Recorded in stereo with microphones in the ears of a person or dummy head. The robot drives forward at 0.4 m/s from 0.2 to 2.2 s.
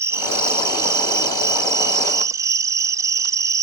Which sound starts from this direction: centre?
An insect, at 0.0 s.